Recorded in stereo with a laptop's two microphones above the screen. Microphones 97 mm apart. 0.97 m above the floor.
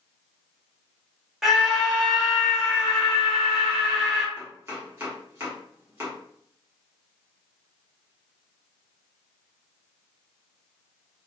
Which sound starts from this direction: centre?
A scream, at 1.4 s.